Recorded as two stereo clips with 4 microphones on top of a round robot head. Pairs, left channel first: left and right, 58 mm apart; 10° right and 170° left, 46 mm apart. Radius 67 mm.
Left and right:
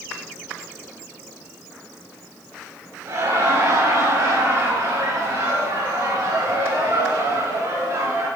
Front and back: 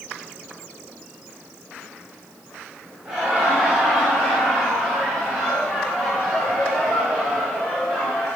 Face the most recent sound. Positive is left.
turn(degrees=-90)